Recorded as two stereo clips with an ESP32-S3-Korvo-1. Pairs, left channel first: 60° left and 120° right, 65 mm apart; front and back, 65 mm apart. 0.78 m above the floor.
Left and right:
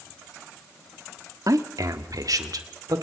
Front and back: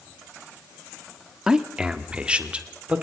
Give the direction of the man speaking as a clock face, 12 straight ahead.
3 o'clock.